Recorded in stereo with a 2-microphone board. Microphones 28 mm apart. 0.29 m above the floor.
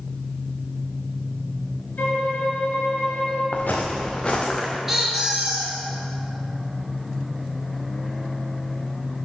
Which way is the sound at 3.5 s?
65° left (ahead or behind).